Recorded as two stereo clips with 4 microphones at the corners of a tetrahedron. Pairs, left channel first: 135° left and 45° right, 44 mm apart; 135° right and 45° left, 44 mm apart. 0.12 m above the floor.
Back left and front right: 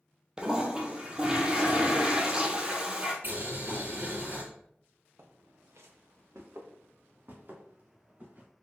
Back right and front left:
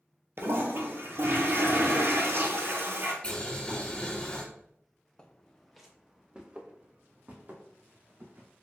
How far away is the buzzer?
I don't hear a buzzer.